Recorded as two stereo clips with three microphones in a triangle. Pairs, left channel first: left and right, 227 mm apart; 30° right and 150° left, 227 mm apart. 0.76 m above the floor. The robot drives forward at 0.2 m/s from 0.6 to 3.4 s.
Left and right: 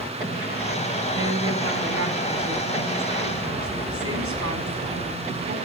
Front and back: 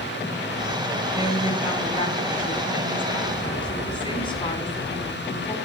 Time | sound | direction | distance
1.1 | a woman speaking | 95° right | 5.5 m